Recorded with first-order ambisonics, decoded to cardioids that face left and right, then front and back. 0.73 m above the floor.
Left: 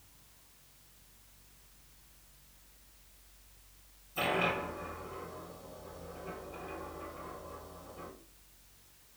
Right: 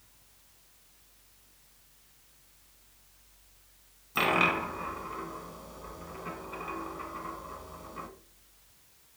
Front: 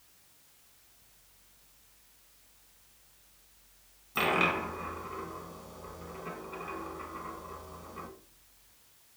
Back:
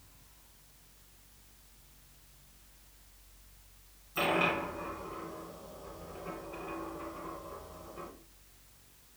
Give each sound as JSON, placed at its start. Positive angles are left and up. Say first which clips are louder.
{"t": 4.2, "sound": "a dropped coin", "louder": "right 6 dB, front 2 dB", "azimuth_deg": -55, "distance_m": 1.4}